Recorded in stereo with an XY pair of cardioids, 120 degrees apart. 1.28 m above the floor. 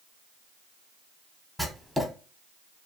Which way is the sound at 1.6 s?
5° left.